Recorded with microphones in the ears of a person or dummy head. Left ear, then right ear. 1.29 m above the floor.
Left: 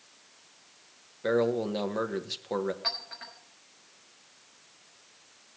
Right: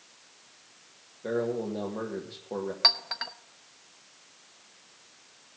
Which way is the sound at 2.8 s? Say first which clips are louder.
Right 9 dB; 40° right (ahead or behind).